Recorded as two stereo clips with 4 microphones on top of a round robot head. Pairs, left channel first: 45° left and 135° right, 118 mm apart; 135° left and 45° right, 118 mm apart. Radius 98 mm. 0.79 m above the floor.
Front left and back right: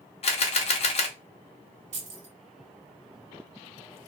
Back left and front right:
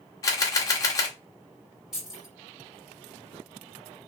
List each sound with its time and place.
0.2 s a camera shutter: 75° left, 0.7 m
1.9 s keys jangling: 130° right, 1.6 m